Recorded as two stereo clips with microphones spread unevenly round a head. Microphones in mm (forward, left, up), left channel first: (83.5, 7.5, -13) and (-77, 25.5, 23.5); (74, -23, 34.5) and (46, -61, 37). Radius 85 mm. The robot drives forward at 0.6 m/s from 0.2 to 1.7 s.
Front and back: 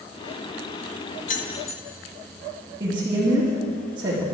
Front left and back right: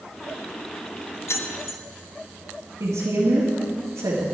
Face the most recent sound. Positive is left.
turn(degrees=-120)